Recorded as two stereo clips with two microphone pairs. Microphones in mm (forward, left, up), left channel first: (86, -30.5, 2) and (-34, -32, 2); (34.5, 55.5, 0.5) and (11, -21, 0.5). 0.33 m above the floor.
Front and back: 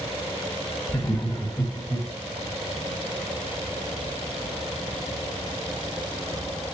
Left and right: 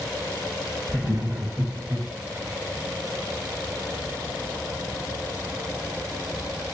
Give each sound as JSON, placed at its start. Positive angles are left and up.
{"t": 0.9, "sound": "laughter", "azimuth_deg": -35, "distance_m": 2.0}